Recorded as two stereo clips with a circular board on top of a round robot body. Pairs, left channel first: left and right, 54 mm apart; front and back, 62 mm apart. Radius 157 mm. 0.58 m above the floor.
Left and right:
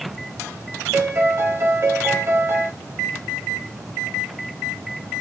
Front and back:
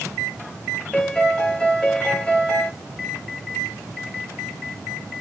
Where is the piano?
75° right, 1.8 m.